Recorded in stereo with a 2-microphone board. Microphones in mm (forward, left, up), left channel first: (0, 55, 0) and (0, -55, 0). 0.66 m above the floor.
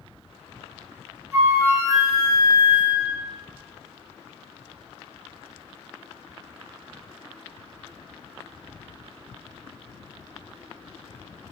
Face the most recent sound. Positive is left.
turn(degrees=-25)  # may be behind; listen again after turning